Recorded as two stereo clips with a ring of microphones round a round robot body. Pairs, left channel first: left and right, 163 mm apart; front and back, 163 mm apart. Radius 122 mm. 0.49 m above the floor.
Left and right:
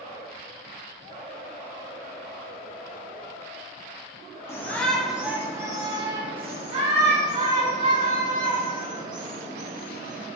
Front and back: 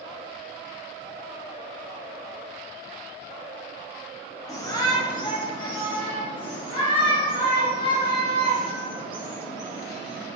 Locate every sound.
4.5 s a shout: 40° left, 1.1 m; by 10.3 s 65° right, 3.5 m